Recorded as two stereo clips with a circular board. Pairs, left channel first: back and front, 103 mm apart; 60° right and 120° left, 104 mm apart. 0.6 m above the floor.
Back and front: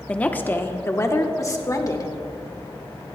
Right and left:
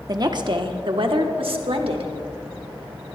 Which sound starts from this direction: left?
A woman speaking, at 0.1 s.